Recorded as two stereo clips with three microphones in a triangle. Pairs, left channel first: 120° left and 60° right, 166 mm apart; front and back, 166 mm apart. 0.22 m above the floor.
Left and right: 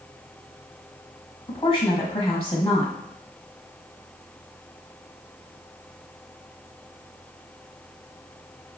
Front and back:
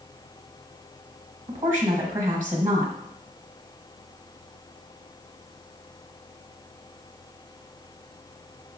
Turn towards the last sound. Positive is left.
turn(degrees=155)